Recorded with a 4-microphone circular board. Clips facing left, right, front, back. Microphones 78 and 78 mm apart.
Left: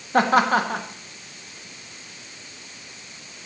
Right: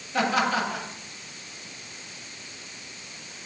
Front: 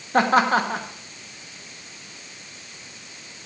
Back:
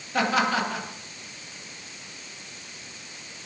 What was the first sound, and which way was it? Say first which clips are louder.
Laughter: left 6 dB, front 6 dB; 50° left.